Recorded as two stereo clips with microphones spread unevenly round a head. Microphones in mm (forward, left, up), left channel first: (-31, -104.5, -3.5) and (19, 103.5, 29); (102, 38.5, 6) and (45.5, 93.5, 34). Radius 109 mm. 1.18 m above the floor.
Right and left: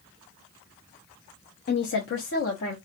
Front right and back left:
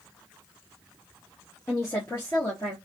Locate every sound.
1.7 s a woman speaking: 90° right, 0.7 m; by 2.8 s 100° right, 1.5 m